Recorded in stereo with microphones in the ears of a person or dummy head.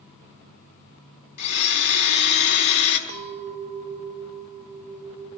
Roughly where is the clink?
Right.